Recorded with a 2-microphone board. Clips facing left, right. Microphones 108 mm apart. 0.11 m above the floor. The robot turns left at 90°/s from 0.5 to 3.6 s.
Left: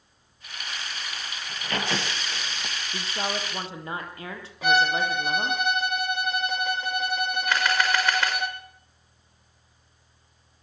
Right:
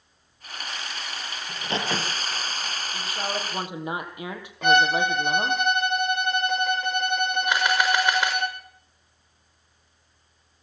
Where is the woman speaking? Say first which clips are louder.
Left 1 dB; 45° left, 3.5 m; by 5.6 s 15° right, 3.5 m.